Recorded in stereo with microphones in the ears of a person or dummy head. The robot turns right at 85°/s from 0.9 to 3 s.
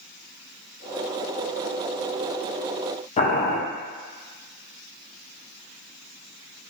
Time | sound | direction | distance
3.2 | boiling | 35° left (ahead or behind) | 0.7 m